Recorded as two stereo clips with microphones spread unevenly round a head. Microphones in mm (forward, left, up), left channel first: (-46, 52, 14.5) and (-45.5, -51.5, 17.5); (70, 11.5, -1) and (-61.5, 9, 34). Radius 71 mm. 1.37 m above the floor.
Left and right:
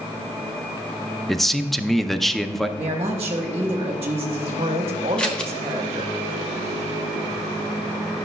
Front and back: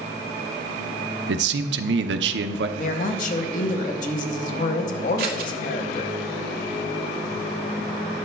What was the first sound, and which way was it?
A man speaking, straight behind.